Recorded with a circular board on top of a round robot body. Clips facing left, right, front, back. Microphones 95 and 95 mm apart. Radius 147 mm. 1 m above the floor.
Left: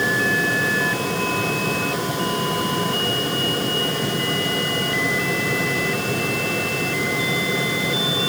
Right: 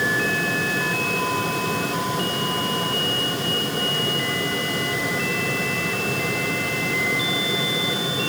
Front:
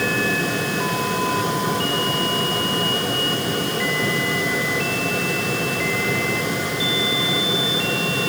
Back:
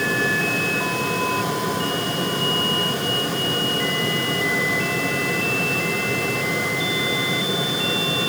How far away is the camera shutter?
I don't hear a camera shutter.